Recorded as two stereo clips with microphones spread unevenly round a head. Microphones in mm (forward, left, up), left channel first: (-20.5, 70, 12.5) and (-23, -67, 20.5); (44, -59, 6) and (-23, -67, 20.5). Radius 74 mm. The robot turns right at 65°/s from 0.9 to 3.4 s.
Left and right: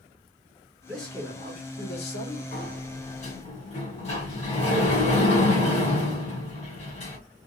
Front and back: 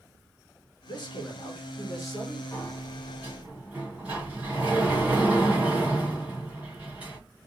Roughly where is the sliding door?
Ahead left.